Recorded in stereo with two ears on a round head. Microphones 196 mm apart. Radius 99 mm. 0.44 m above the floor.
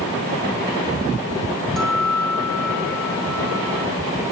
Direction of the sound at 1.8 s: Centre (ahead or behind).